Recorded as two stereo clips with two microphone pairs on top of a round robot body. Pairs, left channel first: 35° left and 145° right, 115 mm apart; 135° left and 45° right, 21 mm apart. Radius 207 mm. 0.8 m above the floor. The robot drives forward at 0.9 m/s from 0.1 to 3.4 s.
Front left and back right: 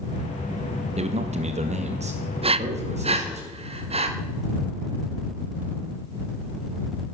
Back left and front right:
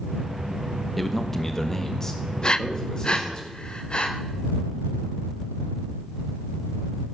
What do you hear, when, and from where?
1.0 s a man speaking: 140° right, 1.5 m; by 3.4 s 165° right, 3.5 m
2.4 s breathing: 170° right, 0.6 m; by 4.1 s 175° right, 1.4 m